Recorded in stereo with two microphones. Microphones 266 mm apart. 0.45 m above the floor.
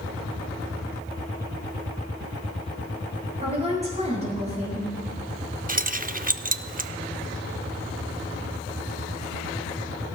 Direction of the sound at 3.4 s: 25° right (ahead or behind).